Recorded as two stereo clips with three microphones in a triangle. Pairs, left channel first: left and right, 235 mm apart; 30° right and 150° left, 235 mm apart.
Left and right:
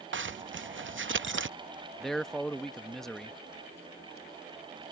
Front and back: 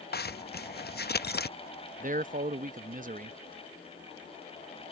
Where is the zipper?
70° right.